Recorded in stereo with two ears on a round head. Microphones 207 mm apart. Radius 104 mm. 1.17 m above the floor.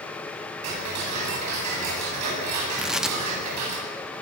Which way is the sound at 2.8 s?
5° right (ahead or behind).